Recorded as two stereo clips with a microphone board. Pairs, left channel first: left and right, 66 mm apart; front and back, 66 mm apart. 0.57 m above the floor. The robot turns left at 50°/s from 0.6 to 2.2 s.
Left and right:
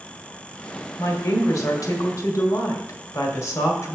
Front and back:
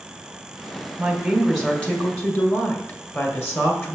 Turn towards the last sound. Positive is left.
turn(degrees=50)